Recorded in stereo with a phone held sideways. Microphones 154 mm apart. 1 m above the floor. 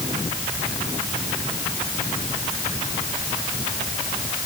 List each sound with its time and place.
Only background noise.